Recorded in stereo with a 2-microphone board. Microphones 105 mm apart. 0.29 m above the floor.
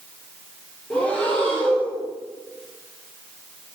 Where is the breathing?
10° left (ahead or behind), 3.5 m.